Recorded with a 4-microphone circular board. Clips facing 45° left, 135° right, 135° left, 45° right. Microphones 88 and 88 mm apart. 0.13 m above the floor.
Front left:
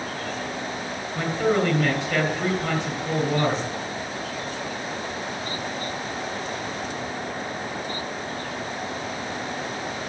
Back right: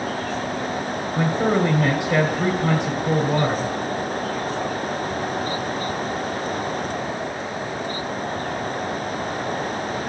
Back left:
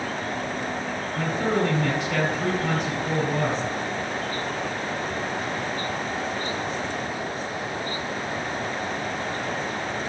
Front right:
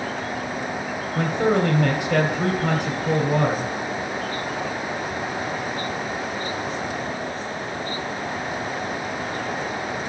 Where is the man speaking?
65° right, 3 m.